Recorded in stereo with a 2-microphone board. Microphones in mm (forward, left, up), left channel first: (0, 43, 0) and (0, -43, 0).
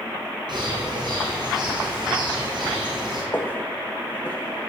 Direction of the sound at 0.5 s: 60° right (ahead or behind).